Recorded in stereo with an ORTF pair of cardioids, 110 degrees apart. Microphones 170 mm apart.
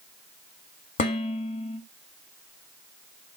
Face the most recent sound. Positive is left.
turn(degrees=55)